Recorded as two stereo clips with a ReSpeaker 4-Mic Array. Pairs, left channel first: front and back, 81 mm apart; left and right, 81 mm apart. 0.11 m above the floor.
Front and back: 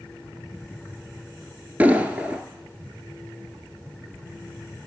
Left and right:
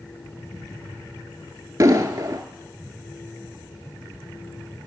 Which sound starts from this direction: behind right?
An explosion, at 1.8 s.